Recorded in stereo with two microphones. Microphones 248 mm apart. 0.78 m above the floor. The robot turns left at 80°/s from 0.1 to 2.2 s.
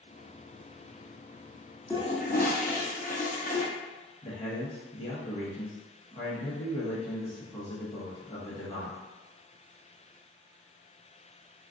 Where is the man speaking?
20° left (ahead or behind), 0.8 m.